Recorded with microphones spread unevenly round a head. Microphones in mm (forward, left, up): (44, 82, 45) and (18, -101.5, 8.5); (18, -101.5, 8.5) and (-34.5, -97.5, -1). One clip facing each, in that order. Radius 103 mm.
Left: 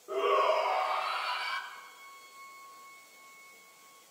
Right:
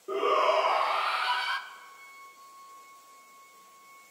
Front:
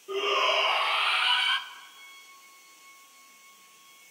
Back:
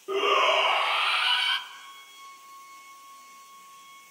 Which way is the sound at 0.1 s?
140° right.